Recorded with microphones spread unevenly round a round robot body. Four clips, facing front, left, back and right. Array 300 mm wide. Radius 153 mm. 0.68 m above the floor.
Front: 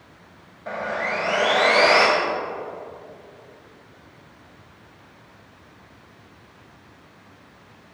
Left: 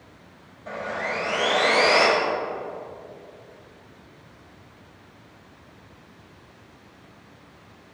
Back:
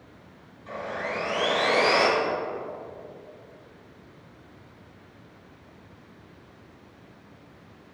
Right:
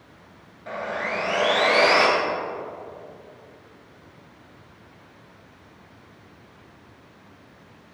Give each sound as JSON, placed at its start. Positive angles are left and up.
{"t": 0.7, "sound": "sawing", "azimuth_deg": 0, "distance_m": 2.5}